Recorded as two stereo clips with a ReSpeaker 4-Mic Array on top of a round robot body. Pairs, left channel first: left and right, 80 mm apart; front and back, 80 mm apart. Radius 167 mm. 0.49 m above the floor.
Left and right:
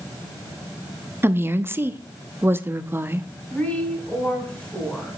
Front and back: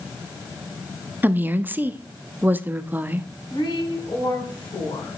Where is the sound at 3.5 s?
15° left, 6.5 m.